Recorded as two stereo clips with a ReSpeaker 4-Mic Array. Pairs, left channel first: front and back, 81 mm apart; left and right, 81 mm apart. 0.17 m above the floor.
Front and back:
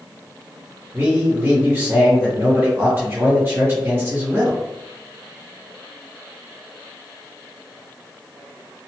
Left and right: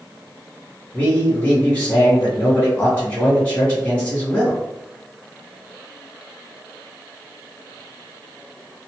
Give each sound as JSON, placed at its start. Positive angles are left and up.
{"t": 0.9, "sound": "a man speaking", "azimuth_deg": 145, "distance_m": 1.9}